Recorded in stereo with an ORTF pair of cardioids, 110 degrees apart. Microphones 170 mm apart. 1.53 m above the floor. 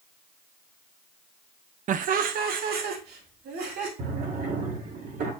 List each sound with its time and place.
1.9 s laughter: 50° right, 0.8 m; by 3.9 s 70° right, 3.5 m
4.0 s a drawer: 65° right, 3.5 m